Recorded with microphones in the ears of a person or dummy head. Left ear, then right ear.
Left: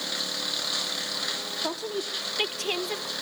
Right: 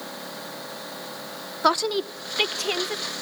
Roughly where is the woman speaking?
Right.